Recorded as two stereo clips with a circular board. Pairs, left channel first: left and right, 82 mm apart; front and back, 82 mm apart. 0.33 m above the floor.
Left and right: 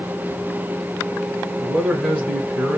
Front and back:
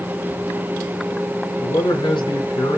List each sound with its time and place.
1.6 s a man speaking: 15° right, 2.5 m